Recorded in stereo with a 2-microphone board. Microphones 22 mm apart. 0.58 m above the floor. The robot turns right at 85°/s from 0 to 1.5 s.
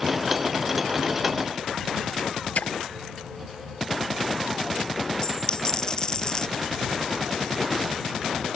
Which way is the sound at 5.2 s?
30° left (ahead or behind).